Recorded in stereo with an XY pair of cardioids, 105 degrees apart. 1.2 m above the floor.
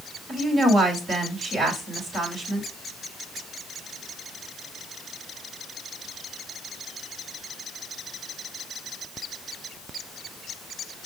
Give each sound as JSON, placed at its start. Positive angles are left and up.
{"t": 0.3, "sound": "a woman speaking", "azimuth_deg": -55, "distance_m": 4.0}